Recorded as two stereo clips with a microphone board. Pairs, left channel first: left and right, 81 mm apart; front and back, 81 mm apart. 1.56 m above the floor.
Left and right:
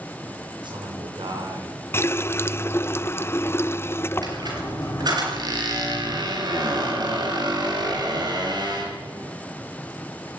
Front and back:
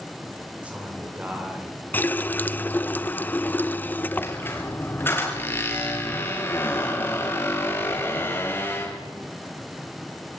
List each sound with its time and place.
0.6 s a man speaking: 105° right, 7.5 m; by 1.8 s 115° right, 8 m
1.9 s a running tap: 55° left, 0.6 m
4.2 s a squeak: 60° right, 6 m